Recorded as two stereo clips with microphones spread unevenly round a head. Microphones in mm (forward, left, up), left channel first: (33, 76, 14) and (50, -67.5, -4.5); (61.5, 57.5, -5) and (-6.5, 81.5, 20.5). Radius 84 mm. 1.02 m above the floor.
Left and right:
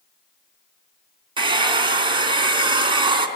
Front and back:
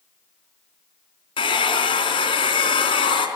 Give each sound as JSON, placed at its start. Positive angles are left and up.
{"t": 1.4, "sound": "a hair dryer", "azimuth_deg": -25, "distance_m": 3.5}